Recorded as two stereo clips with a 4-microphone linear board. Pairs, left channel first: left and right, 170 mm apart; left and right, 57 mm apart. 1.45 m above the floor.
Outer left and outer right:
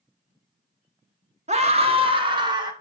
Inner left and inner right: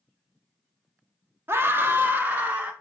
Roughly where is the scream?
Right.